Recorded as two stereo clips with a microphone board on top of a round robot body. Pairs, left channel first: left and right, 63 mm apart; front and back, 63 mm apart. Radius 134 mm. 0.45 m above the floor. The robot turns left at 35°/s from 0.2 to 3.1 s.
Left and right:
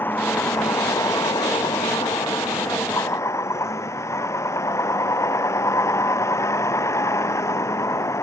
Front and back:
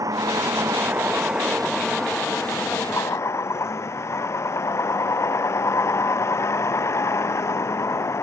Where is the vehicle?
150° left; by 8.2 s 45° left.